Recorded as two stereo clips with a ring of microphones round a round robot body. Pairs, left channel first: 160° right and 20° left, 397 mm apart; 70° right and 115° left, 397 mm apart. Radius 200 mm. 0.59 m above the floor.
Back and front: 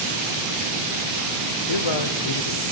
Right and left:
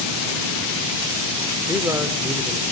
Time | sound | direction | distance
1.7 | a man speaking | 165° right | 2 m